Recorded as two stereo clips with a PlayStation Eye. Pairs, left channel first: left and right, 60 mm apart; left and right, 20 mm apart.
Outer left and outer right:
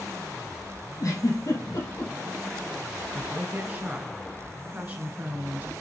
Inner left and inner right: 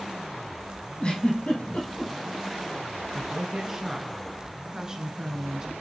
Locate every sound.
1.0 s a giggle: 70° left (ahead or behind), 4 m
3.1 s a woman speaking: 25° right (ahead or behind), 1.3 m